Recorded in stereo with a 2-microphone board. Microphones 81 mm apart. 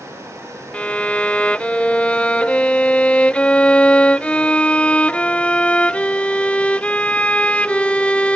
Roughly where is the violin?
Centre.